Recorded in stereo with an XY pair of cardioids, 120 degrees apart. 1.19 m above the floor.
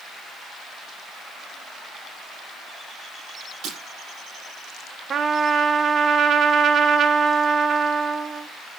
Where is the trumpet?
40° right, 1.0 m.